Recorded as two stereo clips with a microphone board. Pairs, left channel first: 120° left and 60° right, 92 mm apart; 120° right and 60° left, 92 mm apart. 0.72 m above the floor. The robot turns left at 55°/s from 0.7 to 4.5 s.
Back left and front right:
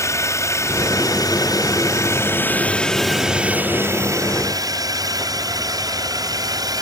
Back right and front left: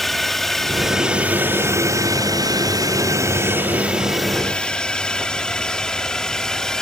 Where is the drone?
155° left; by 6.8 s 40° right.